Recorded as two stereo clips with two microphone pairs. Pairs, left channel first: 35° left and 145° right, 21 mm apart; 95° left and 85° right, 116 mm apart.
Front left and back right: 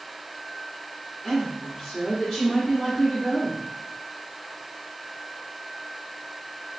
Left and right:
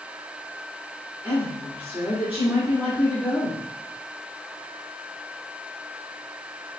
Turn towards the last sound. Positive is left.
turn(degrees=-20)